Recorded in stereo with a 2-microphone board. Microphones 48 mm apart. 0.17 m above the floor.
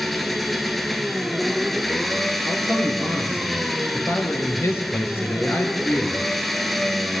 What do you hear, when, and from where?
0.0 s an engine running: centre (ahead or behind), 1.6 m
2.5 s a man speaking: 55° left (ahead or behind), 3.5 m